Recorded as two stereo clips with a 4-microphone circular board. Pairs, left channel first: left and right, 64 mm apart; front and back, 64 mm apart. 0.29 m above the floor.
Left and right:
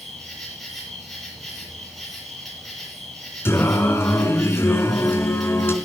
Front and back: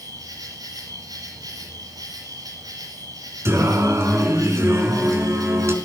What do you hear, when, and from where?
0.0 s an insect: 175° left, 7.5 m
3.5 s singing: 135° left, 4 m